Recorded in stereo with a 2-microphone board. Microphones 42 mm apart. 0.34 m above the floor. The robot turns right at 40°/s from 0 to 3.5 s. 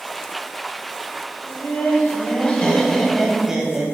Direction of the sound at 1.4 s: 110° left.